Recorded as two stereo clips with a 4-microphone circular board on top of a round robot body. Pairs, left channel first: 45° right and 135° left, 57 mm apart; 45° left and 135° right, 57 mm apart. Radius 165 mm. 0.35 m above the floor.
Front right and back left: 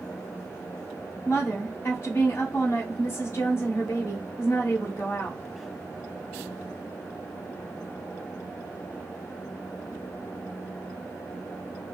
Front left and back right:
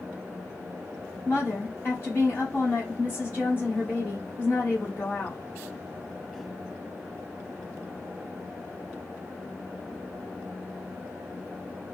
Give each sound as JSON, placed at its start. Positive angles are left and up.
{"t": 1.2, "sound": "a woman speaking", "azimuth_deg": 0, "distance_m": 1.8}